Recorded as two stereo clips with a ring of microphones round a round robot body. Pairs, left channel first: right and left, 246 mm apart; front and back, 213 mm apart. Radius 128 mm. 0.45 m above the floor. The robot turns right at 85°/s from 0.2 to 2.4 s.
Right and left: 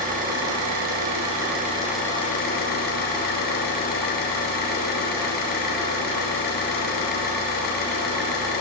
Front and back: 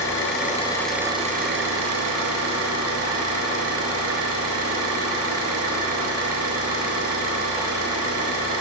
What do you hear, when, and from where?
0.0 s an engine running: 30° left, 3 m; by 8.6 s 145° right, 3 m